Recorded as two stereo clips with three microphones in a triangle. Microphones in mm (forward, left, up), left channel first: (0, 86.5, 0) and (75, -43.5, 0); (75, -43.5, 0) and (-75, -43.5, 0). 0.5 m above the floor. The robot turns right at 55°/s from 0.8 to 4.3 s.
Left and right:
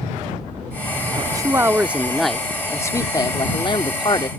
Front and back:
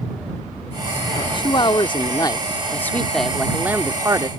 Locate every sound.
1.2 s a man speaking: 25° right; by 4.3 s 145° left